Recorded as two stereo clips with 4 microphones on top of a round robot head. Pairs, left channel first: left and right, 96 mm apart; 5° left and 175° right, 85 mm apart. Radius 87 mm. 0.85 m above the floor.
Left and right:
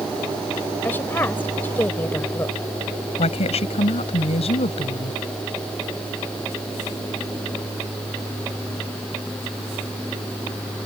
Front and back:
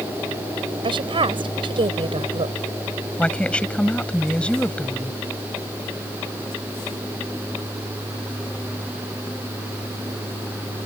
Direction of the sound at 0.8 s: 165° left.